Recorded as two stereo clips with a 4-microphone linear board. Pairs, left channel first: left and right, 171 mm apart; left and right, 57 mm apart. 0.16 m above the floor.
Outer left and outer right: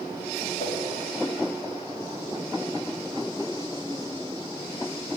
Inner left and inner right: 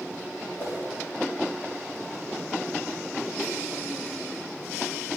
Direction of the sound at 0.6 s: 45° left (ahead or behind).